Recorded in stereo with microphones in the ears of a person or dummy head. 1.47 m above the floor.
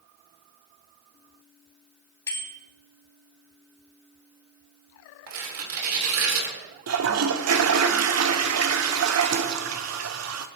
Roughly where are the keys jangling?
No keys jangling in this recording.